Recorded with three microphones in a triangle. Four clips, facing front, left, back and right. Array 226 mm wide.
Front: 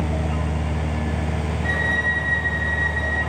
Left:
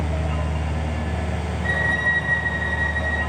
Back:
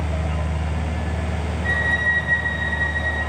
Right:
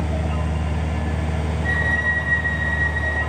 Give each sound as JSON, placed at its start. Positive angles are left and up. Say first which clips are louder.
{"t": 1.6, "sound": "a violin", "louder": "left 1 dB, back 2 dB", "azimuth_deg": 70, "distance_m": 4.0}